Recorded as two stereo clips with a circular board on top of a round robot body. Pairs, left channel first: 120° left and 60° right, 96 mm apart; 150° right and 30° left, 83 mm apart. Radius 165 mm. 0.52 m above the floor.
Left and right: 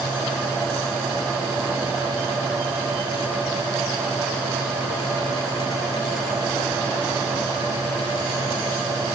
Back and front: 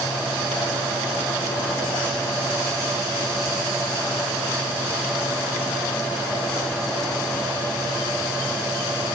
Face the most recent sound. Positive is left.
No sound to turn to.